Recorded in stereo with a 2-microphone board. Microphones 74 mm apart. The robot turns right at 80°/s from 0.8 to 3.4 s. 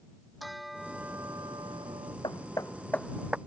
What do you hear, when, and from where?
0.4 s a bell: straight behind; by 2.1 s 75° right
2.2 s hammering: 70° left (ahead or behind); by 3.4 s 15° right (ahead or behind)